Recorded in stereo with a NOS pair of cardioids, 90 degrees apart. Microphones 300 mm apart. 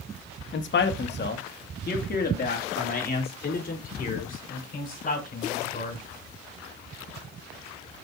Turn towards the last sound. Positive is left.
turn(degrees=30)